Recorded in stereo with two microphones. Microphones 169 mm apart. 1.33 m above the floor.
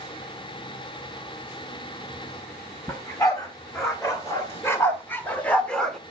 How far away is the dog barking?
About 2 m.